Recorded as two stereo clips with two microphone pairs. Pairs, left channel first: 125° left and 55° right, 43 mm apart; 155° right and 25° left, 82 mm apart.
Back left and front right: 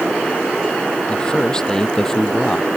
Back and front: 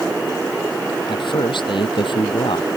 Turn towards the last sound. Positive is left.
turn(degrees=-150)